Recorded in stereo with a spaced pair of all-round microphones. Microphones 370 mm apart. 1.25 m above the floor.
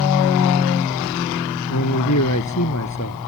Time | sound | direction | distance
1.7 | a man speaking | 50° left (ahead or behind) | ?